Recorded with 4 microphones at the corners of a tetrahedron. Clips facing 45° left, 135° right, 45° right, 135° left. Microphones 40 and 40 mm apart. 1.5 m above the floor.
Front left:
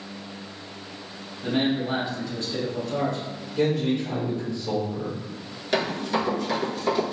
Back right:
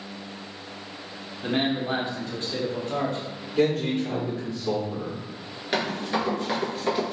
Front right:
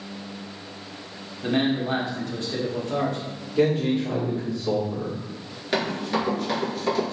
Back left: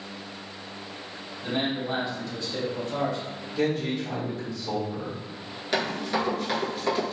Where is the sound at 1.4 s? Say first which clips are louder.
Front left 1 dB, front right 5 dB; 85° right, 1.0 m.